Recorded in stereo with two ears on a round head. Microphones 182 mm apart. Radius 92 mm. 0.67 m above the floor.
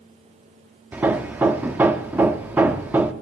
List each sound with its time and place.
0.9 s hammering: 10° right (ahead or behind), 0.6 m